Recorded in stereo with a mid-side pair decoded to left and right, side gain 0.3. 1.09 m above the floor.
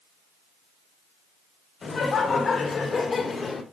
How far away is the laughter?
About 4 m.